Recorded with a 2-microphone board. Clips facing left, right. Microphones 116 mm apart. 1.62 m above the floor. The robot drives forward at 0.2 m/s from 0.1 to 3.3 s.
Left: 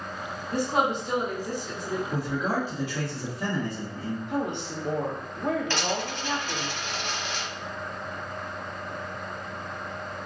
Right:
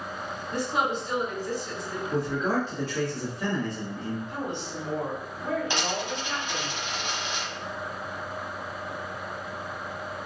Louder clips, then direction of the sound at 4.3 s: Left 4 dB; 65° left (ahead or behind).